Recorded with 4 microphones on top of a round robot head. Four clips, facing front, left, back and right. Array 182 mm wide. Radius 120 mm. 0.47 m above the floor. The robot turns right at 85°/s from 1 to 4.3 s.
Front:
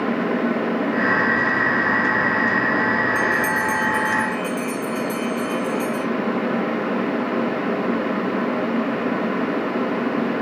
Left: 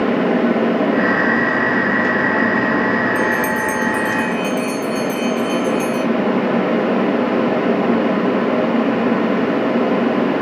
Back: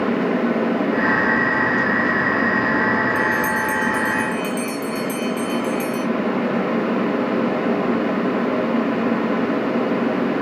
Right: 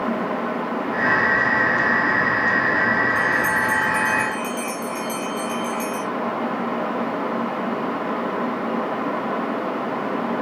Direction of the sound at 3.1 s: 70° left.